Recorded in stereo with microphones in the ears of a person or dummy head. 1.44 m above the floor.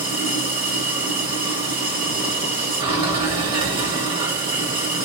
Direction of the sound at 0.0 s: 35° right (ahead or behind).